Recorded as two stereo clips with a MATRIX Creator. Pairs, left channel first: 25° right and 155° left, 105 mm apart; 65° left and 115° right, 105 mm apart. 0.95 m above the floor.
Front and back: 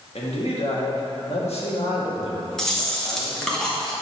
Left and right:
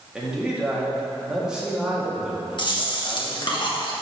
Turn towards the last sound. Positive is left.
turn(degrees=60)